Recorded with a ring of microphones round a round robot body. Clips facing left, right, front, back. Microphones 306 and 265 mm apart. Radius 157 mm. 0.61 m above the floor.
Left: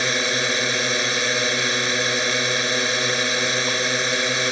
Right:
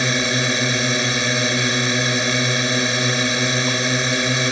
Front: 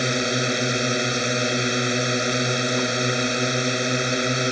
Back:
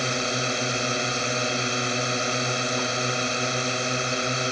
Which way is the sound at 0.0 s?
75° right.